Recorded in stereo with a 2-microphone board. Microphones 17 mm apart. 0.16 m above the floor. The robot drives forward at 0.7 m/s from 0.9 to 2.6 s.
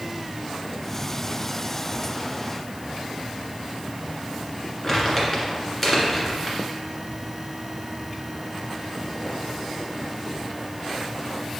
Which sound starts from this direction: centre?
Crumpling, at 4.8 s.